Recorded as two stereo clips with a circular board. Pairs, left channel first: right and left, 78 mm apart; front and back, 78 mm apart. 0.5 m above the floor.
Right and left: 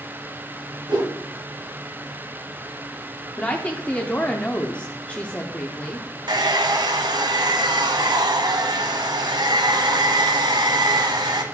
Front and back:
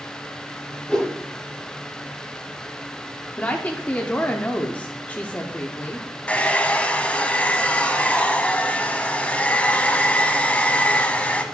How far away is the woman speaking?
About 0.7 m.